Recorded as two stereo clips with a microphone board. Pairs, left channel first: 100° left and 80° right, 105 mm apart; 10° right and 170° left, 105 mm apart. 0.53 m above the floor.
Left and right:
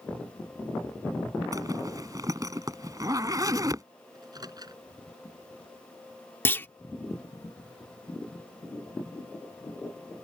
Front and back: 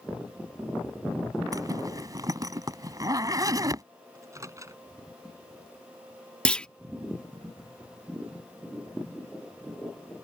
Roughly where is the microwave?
Behind right.